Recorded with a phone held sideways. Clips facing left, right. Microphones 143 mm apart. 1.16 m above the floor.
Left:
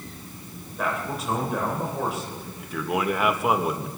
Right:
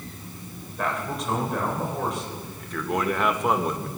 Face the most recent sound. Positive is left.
turn(degrees=5)  # may be behind; listen again after turning